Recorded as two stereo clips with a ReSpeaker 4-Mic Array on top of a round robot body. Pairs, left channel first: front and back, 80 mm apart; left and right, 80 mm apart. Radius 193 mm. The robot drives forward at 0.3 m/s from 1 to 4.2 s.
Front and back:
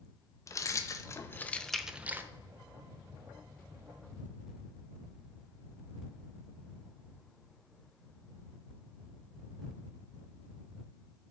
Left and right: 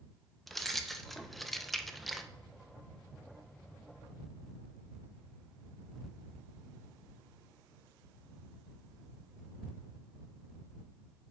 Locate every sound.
0.5 s keys jangling: straight ahead, 0.5 m; by 2.3 s 175° left, 0.5 m